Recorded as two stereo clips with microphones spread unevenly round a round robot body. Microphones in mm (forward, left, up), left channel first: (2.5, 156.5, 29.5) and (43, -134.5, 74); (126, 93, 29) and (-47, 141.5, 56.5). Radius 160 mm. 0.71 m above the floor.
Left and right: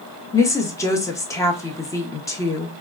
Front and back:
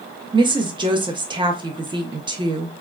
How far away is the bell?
No bell in this recording.